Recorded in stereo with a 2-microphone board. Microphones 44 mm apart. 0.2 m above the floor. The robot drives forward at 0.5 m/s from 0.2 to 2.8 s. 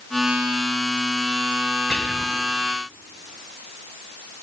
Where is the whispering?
20° left (ahead or behind), 1.0 m.